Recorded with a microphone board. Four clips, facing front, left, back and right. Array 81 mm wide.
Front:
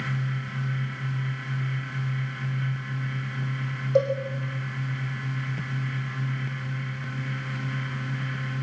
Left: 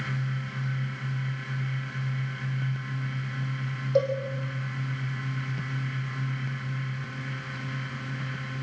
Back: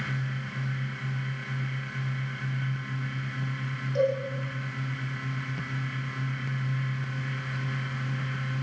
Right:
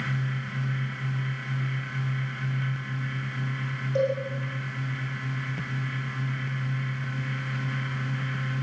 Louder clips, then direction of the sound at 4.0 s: Left 1 dB, front 3 dB; 25° left.